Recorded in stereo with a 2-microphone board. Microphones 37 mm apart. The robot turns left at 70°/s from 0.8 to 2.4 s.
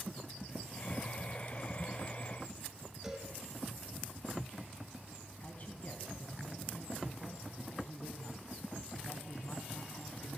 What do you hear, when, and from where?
3.0 s a cowbell: 10° right (ahead or behind), 2 m
5.4 s a man speaking: 40° left (ahead or behind), 1.3 m